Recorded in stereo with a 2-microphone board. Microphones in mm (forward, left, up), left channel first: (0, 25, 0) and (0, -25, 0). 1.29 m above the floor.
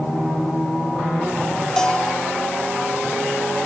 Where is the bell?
15° left (ahead or behind), 0.8 m.